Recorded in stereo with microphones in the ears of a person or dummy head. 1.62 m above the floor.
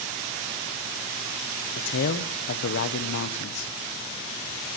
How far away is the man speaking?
About 1.0 m.